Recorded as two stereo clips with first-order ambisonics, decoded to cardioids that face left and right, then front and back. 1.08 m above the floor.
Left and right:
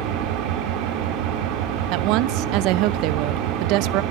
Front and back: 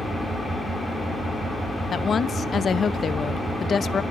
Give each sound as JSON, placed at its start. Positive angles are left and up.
{"t": 0.0, "sound": "an engine running", "azimuth_deg": -85, "distance_m": 3.0}
{"t": 1.9, "sound": "a woman speaking", "azimuth_deg": -65, "distance_m": 0.5}